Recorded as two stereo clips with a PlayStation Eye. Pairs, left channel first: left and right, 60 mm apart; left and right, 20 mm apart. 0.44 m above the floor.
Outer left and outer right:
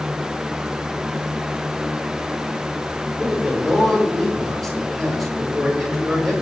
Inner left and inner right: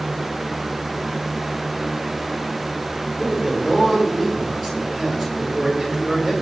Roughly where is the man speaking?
Centre.